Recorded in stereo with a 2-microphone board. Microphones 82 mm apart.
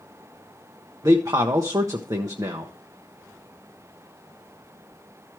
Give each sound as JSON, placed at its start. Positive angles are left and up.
{"t": 1.0, "sound": "a man speaking", "side_deg": -50, "distance_m": 0.8}